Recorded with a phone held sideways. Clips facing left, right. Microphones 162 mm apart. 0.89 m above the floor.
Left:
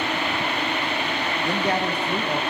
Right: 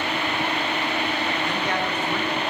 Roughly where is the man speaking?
Left.